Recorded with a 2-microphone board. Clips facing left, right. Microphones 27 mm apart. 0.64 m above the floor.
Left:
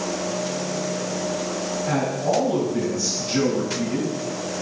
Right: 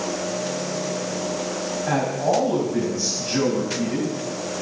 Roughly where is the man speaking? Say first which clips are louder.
Right 2 dB; right.